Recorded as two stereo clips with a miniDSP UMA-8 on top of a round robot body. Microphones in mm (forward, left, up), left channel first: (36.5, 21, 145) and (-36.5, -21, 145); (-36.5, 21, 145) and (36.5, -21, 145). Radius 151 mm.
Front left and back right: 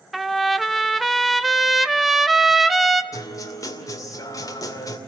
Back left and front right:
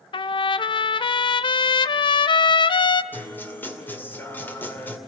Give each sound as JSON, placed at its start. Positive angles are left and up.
{"t": 0.1, "sound": "a trumpet", "azimuth_deg": 120, "distance_m": 0.6}
{"t": 3.1, "sound": "a guitar", "azimuth_deg": 80, "distance_m": 2.5}